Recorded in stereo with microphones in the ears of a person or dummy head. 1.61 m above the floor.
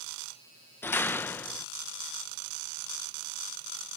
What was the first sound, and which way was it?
A door slam, 10° left (ahead or behind).